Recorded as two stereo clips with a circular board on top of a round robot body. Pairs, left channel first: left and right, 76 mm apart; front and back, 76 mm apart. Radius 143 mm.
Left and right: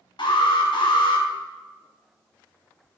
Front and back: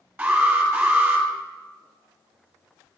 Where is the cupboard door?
I don't hear a cupboard door.